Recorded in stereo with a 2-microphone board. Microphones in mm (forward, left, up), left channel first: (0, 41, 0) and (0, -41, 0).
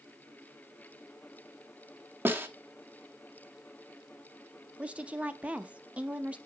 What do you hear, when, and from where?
2.2 s a snare drum: 25° right (ahead or behind), 0.8 m
4.8 s a woman speaking: 15° right (ahead or behind), 0.6 m